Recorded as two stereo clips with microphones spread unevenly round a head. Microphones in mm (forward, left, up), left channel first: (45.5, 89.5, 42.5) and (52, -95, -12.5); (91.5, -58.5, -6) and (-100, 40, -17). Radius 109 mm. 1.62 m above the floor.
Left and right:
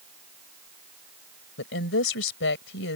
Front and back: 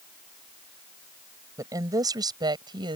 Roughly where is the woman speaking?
Left.